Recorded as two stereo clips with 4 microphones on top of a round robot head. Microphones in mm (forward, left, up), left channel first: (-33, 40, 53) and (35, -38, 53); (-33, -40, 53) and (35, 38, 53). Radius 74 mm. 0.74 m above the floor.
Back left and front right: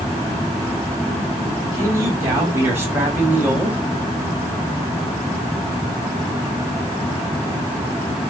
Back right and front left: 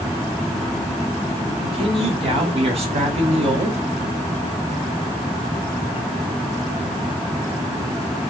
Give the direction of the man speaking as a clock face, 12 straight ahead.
12 o'clock.